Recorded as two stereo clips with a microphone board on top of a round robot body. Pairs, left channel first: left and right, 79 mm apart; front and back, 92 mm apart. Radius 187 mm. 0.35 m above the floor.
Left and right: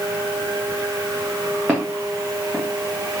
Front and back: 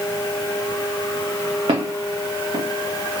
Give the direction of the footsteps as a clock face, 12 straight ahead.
6 o'clock.